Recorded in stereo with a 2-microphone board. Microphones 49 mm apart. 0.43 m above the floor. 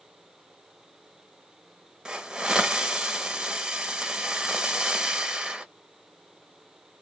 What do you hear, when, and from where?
2.0 s a hiss: 15° right (ahead or behind), 0.8 m